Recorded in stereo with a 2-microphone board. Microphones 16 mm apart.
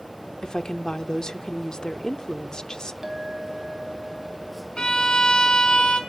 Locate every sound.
0.4 s a woman speaking: 55° left (ahead or behind), 1.1 m
3.0 s a clink: 35° right (ahead or behind), 2.5 m
4.8 s a violin: 75° left (ahead or behind), 4 m